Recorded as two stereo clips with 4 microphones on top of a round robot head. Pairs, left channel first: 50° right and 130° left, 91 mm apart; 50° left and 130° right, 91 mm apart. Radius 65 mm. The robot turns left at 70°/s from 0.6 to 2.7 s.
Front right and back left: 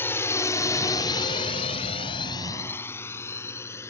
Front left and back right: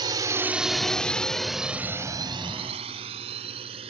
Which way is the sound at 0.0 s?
110° right.